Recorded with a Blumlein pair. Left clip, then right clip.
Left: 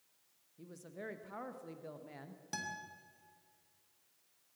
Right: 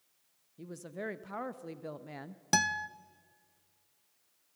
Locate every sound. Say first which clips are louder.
0.6 s a woman speaking: right 7 dB; 20° right, 0.8 m
2.5 s a guitar: right 14 dB; 55° right, 0.6 m